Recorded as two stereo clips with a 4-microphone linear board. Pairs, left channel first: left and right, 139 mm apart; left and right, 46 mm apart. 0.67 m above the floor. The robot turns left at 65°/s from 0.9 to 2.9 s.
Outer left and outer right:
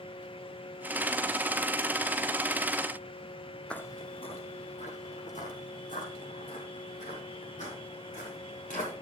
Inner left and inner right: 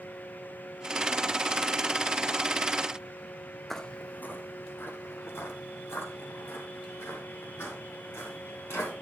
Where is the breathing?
I don't hear breathing.